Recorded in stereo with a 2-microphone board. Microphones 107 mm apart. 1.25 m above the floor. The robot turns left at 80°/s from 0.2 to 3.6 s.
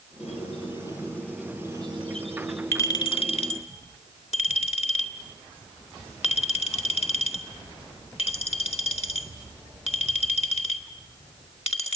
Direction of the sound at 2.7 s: 25° left (ahead or behind).